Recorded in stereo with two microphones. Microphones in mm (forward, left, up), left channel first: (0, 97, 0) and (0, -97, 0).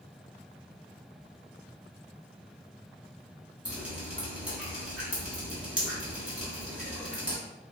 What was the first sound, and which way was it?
Dripping, 5° right (ahead or behind).